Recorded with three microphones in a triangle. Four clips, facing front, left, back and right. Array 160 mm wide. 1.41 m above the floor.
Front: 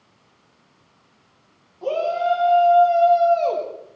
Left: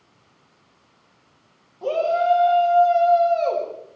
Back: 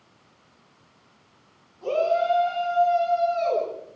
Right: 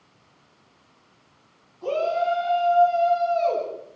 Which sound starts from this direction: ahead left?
A shout, at 1.8 s.